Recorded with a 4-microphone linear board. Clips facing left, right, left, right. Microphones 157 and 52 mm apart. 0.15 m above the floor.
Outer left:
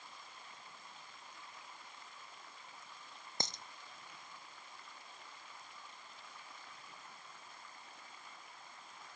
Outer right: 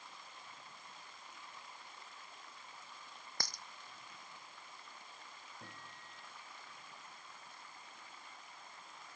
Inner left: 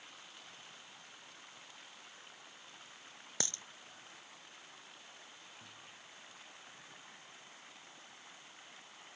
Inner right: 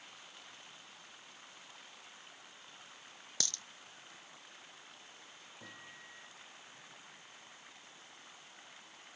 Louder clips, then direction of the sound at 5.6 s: Outer right 1 dB, inner right 3 dB; 75° right (ahead or behind).